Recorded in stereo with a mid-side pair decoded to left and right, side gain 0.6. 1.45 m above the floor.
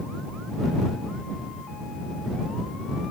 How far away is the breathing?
No breathing in this recording.